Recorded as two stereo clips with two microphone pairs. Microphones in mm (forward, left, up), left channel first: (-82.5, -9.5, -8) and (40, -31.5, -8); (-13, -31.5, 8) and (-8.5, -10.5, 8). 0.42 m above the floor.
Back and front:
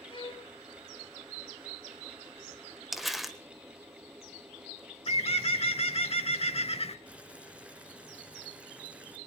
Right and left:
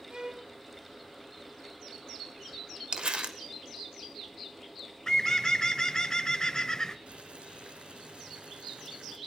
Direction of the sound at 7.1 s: 70° left.